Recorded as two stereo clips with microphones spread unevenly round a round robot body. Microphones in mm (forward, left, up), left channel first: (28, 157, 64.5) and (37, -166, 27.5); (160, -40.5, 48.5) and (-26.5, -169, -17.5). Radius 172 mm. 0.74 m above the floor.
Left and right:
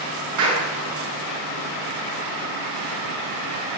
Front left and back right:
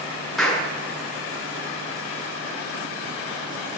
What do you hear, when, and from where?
0.4 s a clap: 55° right, 10 m